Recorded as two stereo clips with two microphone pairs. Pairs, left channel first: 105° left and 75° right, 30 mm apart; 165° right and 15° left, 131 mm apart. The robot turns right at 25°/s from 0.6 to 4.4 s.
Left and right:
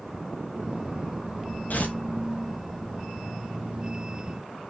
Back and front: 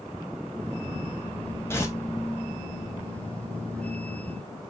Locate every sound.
1.7 s tearing paper: 125° left, 1.6 m; by 2.0 s 130° left, 1.6 m